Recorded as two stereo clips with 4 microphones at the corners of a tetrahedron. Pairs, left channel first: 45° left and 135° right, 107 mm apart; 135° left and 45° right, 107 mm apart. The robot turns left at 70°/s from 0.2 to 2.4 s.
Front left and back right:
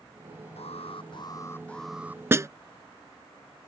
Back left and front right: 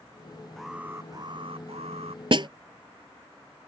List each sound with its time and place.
0.6 s an alarm: 45° left; by 2.2 s 70° right
2.3 s a snare drum: 70° right; by 2.5 s 75° right